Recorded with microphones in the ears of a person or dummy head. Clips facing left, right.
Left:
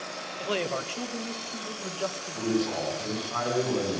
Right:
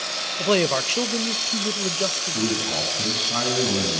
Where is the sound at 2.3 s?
50° right (ahead or behind), 9.5 m.